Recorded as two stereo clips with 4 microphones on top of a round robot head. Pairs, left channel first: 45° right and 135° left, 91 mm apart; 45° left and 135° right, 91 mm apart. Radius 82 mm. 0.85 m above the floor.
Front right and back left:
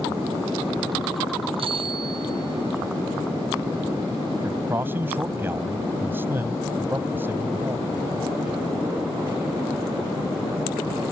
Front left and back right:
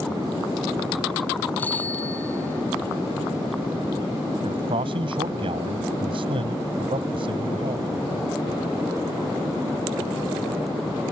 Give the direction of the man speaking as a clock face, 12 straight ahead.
5 o'clock.